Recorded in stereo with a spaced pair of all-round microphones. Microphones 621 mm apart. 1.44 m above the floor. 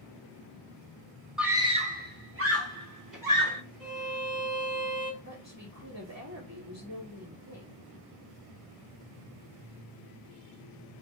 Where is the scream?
Centre (ahead or behind), 1.2 m; by 3.6 s 35° right (ahead or behind), 2 m.